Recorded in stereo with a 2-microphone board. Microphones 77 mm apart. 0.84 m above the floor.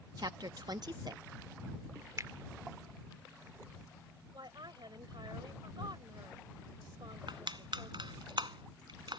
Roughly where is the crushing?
Right.